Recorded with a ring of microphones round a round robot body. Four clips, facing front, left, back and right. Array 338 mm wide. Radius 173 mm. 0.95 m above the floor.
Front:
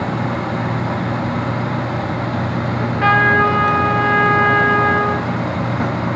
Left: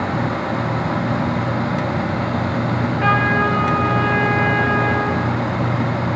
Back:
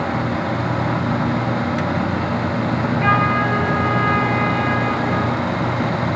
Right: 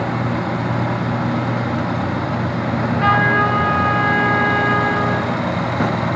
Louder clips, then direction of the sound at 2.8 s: Right 3 dB, front 3 dB; 5° right.